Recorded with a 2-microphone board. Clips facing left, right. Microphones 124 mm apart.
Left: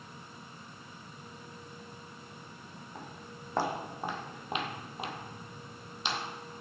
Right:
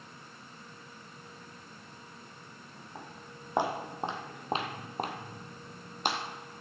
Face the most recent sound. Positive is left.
turn(degrees=-50)  # may be behind; listen again after turning